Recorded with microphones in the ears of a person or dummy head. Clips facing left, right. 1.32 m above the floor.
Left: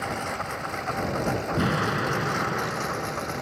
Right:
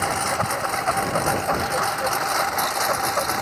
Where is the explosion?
60° left (ahead or behind).